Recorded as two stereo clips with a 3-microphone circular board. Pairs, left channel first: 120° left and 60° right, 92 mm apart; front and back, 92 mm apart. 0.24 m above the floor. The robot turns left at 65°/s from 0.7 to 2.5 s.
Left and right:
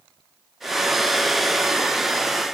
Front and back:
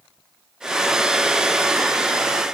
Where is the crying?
No crying in this recording.